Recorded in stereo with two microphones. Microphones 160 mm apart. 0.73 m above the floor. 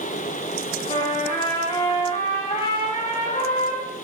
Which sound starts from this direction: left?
A trumpet, at 0.9 s.